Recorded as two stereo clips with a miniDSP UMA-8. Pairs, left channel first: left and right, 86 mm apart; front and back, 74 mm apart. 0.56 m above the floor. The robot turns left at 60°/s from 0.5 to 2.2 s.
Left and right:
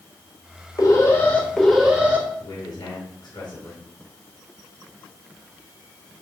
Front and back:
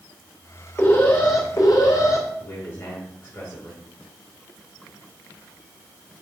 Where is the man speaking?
55° left, 5.5 m.